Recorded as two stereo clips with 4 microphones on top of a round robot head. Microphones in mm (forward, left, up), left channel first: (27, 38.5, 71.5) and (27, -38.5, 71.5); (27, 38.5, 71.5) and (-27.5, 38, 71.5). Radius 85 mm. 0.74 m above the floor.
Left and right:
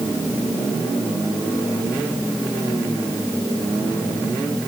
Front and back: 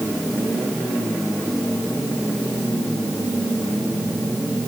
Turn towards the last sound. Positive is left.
No sound to turn to.